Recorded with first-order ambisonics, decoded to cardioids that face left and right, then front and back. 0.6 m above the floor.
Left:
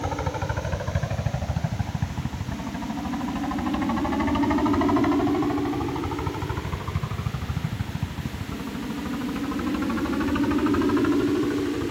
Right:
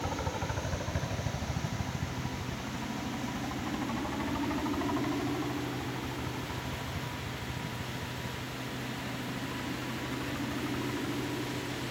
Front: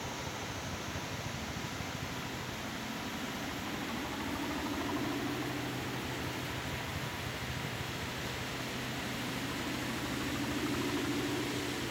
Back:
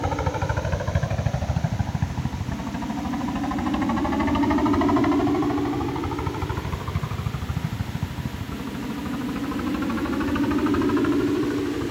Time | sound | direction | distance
0.0 | a helicopter | 155° left | ?